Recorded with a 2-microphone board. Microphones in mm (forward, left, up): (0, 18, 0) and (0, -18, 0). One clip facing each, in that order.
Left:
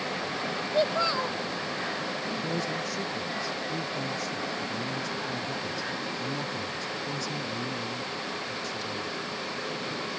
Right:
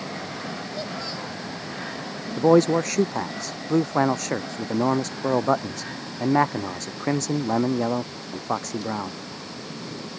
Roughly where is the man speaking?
Right.